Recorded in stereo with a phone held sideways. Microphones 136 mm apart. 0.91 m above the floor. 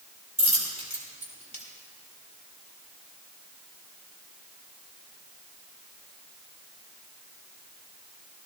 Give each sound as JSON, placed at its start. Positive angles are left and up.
{"t": 0.4, "sound": "a dropped coin", "side_deg": -55, "distance_m": 3.0}